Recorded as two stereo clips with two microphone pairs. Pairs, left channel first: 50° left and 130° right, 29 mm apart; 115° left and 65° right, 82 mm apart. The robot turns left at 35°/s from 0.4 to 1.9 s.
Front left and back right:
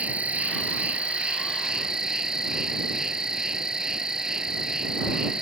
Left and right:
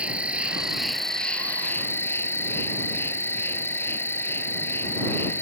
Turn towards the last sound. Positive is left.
turn(degrees=165)